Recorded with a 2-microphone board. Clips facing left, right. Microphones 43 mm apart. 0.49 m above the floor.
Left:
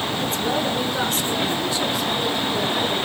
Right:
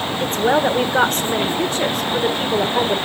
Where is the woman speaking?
55° right (ahead or behind), 1.3 m.